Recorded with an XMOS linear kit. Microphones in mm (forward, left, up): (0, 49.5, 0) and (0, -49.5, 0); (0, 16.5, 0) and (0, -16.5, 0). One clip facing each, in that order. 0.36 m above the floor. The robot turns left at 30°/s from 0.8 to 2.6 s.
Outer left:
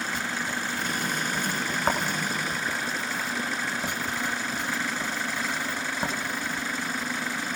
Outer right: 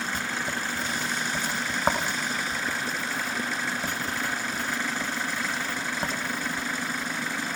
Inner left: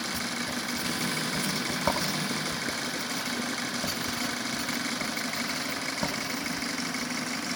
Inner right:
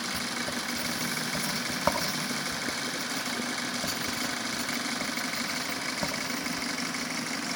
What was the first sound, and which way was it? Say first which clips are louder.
Writing: even, even; 40° right (ahead or behind).